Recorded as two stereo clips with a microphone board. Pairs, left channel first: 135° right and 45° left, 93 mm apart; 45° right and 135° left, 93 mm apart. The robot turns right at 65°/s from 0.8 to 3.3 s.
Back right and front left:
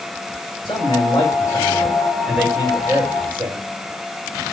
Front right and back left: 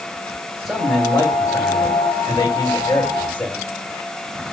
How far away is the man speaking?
About 7.5 m.